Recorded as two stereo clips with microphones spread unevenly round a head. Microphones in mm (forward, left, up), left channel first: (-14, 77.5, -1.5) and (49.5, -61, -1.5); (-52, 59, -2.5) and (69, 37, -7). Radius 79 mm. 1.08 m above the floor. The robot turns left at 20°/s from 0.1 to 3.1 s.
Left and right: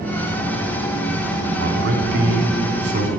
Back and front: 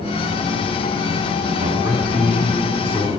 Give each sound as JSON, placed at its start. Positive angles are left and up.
{"t": 1.5, "sound": "a man speaking", "azimuth_deg": -60, "distance_m": 2.5}